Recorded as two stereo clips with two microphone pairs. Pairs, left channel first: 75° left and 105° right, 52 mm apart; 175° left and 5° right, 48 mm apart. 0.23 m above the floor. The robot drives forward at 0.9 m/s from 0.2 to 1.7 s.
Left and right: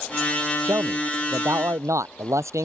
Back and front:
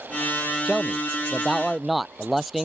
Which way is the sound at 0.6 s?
80° right.